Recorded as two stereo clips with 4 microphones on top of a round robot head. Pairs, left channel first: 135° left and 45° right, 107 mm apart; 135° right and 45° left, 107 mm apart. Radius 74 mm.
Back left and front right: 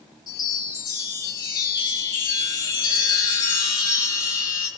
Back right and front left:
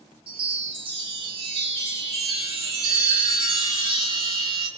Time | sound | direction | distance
0.3 | a chime | 80° left | 5 m